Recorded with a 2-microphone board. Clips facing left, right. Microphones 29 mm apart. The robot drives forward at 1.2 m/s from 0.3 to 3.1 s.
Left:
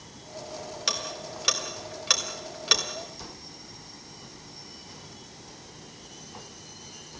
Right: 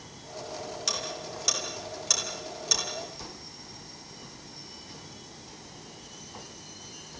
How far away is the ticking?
About 4 m.